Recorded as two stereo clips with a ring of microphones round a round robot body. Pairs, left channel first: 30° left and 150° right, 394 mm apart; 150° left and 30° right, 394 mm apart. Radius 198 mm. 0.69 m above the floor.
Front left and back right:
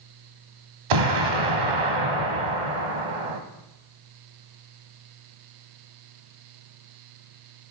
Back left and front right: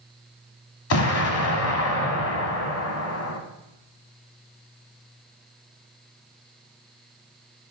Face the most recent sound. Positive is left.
turn(degrees=-155)